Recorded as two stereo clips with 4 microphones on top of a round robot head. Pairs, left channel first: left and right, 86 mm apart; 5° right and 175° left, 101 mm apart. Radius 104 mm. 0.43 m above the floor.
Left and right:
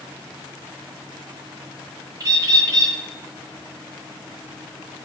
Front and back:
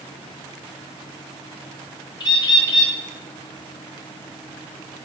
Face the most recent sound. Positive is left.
turn(degrees=-45)